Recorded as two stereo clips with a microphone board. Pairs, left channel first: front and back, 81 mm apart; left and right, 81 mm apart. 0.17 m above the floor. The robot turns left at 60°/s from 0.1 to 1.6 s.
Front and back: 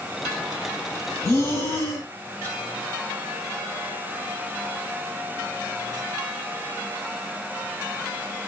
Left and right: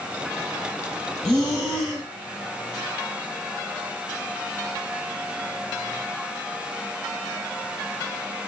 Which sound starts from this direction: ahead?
Breathing, at 1.2 s.